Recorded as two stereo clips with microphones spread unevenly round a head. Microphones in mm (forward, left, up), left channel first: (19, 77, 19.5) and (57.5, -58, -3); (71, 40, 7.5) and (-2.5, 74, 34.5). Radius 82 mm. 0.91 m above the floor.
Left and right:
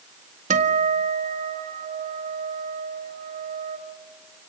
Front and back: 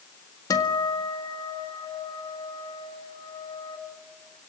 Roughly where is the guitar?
Ahead right.